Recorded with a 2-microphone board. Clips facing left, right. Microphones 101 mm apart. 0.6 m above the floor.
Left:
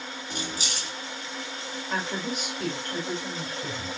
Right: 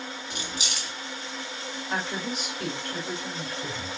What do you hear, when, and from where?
0.3 s keys jangling: 35° left (ahead or behind), 1.1 m
1.9 s a woman speaking: centre (ahead or behind), 3 m